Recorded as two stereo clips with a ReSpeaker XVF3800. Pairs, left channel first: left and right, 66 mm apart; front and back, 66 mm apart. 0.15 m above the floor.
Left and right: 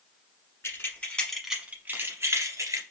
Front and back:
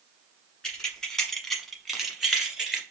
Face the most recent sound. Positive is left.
turn(degrees=-100)